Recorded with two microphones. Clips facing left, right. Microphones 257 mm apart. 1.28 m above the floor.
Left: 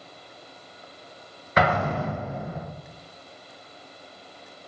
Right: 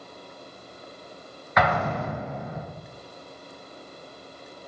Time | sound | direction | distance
1.6 | an explosion | 35° left (ahead or behind) | 0.6 m